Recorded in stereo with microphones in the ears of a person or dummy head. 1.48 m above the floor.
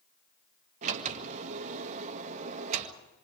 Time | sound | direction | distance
0.8 | a sliding door | 40° right (ahead or behind) | 1.7 m